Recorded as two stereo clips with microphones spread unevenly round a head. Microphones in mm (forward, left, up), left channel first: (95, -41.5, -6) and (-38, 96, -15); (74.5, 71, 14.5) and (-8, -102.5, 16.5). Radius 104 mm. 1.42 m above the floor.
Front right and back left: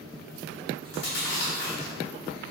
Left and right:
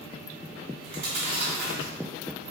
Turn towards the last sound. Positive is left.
turn(degrees=-60)